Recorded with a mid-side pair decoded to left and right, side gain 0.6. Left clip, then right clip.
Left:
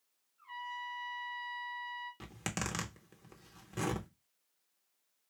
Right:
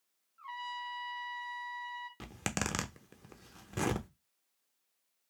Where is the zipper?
25° right, 0.7 m.